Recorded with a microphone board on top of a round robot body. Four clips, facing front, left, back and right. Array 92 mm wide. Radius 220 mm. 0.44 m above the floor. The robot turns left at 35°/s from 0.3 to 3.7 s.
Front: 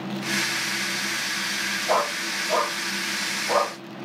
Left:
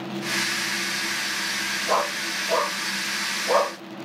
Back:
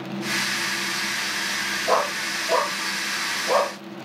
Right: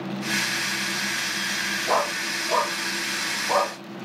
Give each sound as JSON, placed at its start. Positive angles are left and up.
{"t": 1.9, "sound": "a dog barking", "azimuth_deg": -150, "distance_m": 8.0}